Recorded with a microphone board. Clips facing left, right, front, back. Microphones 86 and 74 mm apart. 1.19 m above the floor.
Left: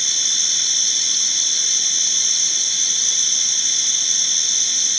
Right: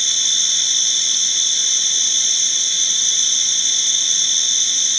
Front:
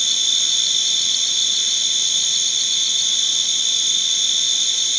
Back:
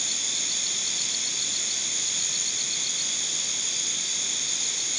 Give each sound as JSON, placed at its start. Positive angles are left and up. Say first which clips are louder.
{"t": 0.0, "sound": "an insect", "louder": "right 3 dB, front 9 dB", "azimuth_deg": 0}